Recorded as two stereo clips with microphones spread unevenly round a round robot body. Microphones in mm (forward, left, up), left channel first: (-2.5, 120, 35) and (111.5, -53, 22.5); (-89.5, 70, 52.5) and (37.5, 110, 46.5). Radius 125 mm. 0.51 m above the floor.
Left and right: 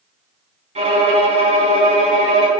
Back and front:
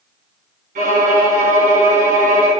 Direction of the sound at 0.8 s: Straight ahead.